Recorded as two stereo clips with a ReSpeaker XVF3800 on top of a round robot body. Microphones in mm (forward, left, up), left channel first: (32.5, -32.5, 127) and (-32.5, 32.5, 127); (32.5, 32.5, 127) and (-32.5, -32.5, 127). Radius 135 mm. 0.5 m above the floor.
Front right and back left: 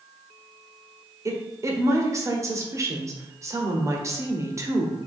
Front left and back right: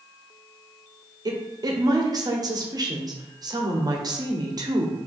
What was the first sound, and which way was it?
A woman speaking, 175° right.